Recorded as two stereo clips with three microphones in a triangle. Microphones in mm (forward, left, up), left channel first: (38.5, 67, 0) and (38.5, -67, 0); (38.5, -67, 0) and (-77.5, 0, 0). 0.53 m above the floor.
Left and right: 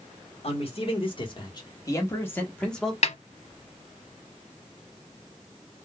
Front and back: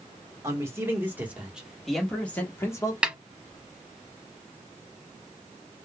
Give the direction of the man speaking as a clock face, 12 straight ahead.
9 o'clock.